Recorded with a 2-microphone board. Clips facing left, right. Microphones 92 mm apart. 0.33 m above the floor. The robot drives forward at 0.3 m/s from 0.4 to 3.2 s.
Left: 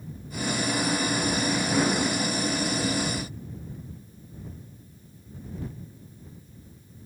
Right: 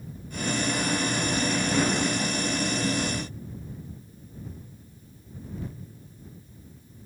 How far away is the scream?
No scream in this recording.